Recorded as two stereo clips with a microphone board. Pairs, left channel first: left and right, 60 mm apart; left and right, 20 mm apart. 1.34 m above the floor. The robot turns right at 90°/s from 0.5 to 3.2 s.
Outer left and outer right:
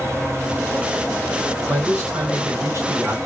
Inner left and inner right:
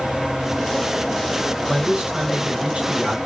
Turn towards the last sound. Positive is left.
turn(degrees=-15)